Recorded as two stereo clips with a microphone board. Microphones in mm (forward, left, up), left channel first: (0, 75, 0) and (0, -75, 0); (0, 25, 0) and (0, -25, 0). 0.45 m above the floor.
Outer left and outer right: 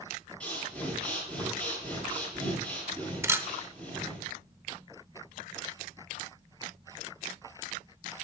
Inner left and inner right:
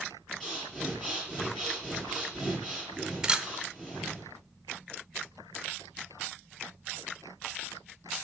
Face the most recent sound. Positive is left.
turn(degrees=-15)  # may be behind; listen again after turning